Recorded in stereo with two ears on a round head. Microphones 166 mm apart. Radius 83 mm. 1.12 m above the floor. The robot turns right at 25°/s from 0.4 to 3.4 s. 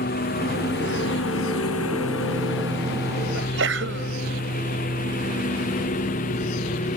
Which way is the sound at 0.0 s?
50° left (ahead or behind).